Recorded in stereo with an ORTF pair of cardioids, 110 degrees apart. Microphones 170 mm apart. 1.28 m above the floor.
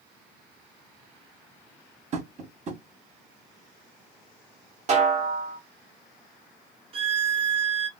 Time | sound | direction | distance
2.1 | tapping | 40° right | 1.2 m
4.9 | a snare drum | 40° right | 1.2 m
6.9 | a violin | 35° right | 0.7 m